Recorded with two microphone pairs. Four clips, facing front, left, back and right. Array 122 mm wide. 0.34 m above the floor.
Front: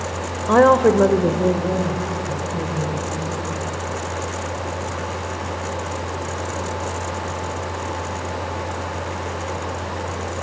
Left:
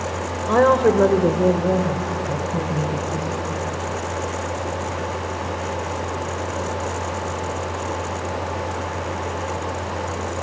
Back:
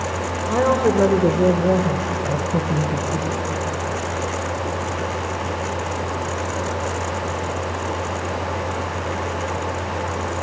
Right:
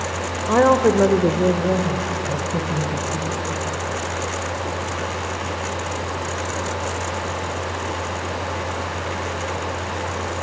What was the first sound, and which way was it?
A woman speaking, straight ahead.